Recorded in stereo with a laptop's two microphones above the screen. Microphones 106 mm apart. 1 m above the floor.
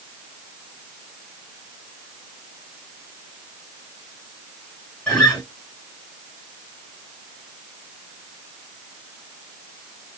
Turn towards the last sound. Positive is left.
turn(degrees=10)  # may be behind; listen again after turning